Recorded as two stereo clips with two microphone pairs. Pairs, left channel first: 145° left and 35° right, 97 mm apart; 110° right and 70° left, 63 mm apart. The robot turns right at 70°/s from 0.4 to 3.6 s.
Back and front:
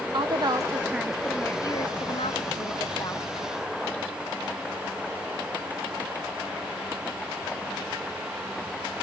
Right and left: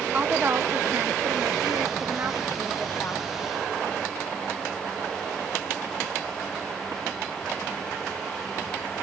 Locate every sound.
0.1 s a woman speaking: 5° left, 1.0 m; by 3.3 s 155° right, 1.0 m